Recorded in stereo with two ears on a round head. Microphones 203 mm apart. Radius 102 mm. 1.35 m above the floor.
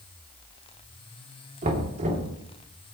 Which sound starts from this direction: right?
Knocking, at 1.6 s.